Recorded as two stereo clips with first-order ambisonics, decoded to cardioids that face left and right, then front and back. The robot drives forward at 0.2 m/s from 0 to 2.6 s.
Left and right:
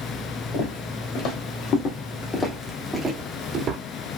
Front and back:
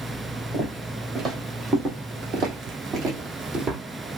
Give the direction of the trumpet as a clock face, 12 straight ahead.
I don't hear a trumpet.